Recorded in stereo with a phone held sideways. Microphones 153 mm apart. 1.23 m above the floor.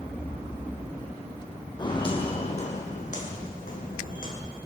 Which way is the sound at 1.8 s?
30° left (ahead or behind).